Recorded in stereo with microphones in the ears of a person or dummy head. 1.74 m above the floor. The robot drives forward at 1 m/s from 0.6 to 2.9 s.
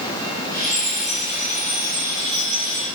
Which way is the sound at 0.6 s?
Centre (ahead or behind).